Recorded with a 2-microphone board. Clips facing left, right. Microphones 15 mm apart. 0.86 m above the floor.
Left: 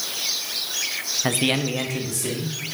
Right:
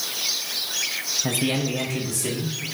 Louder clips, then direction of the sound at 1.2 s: Left 5 dB; 55° left (ahead or behind).